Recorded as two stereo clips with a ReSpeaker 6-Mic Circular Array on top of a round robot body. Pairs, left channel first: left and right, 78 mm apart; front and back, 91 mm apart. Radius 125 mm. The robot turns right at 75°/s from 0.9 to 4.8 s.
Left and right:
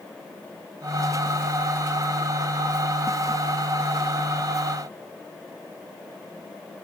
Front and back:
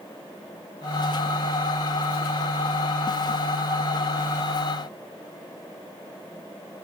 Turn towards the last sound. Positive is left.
No sound to turn to.